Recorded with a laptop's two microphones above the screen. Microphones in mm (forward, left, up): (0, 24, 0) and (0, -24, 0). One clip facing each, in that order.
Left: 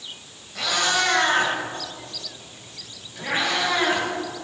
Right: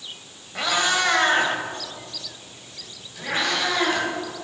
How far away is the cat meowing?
About 2.5 m.